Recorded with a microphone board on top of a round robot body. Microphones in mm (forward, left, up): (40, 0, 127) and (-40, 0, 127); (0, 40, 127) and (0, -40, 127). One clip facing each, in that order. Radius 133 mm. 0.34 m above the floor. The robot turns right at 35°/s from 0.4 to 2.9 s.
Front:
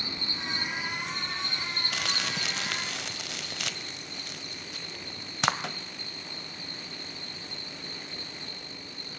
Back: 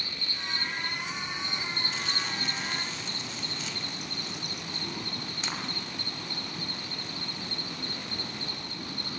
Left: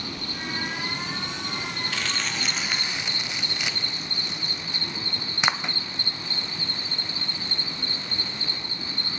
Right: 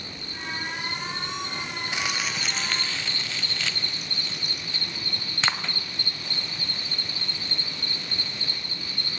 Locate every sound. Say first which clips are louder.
0.0 s an insect: front 2 dB, left 4 dB; 65° left, 1.3 m; by 9.2 s 155° left, 1.3 m
1.9 s crumpling: front 1 dB, right 2 dB; 20° right, 1.3 m; by 5.8 s 15° left, 1.3 m